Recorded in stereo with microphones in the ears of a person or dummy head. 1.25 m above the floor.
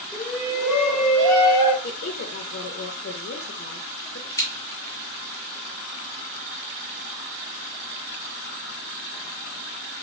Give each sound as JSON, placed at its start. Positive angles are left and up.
{"t": 0.1, "sound": "a shout", "side_deg": 5, "distance_m": 1.0}
{"t": 1.8, "sound": "a woman speaking", "side_deg": 60, "distance_m": 0.6}
{"t": 4.4, "sound": "scissors", "side_deg": 15, "distance_m": 0.8}